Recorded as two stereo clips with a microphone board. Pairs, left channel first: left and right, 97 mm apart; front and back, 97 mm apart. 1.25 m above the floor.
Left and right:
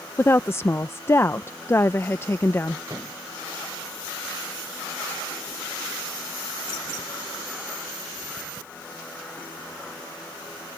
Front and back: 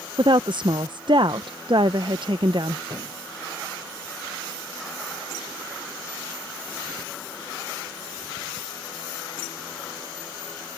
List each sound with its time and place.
0.2 s a woman speaking: 150° left
2.9 s a thud: 145° right